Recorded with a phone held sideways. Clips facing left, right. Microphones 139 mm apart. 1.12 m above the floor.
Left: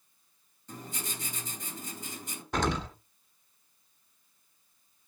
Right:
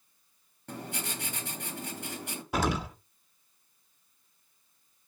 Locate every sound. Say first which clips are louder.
0.7 s writing: right 3 dB; 70° right (ahead or behind), 3 m
2.5 s an explosion: right 1 dB; 5° right (ahead or behind), 1.4 m